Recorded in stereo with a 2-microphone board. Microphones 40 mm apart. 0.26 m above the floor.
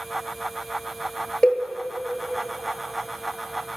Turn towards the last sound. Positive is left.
turn(degrees=25)  # may be behind; listen again after turning